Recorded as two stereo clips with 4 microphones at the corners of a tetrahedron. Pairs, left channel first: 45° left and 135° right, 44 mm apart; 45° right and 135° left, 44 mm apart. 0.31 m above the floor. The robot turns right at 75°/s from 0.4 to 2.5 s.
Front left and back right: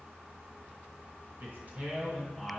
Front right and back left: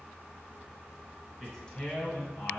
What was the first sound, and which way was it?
A man speaking, 135° right.